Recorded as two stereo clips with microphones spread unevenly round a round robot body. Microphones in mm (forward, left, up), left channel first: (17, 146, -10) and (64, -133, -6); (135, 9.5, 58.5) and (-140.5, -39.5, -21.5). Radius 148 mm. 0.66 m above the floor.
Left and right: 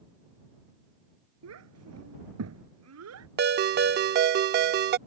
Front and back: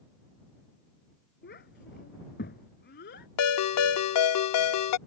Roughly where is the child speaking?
Ahead right.